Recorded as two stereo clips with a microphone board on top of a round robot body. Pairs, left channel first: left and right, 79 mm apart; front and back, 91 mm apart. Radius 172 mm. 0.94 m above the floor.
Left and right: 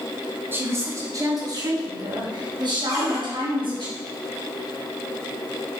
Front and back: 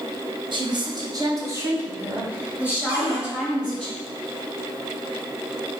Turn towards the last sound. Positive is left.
turn(degrees=-140)